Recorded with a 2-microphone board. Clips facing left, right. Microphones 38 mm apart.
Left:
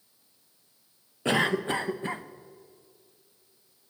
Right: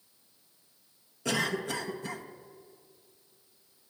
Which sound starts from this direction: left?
A cough, at 1.2 s.